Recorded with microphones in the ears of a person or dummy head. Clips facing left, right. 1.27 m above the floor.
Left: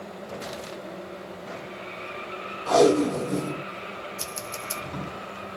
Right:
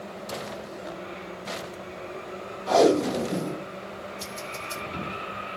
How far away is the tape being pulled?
About 1.9 m.